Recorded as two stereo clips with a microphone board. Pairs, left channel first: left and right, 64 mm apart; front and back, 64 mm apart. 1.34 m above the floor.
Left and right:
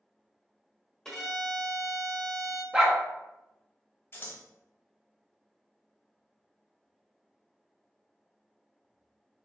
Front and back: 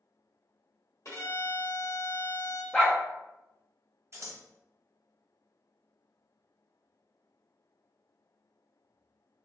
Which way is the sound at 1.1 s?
10° left.